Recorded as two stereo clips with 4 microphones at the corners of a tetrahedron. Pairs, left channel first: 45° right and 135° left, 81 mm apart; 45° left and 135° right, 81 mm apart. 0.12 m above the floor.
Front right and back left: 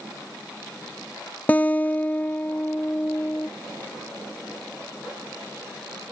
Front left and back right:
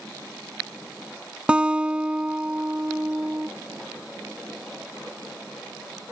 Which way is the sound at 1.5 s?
75° right.